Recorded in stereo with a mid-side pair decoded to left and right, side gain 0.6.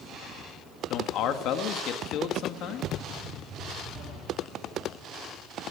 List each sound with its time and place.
0.9 s a man speaking: 60° left, 2.0 m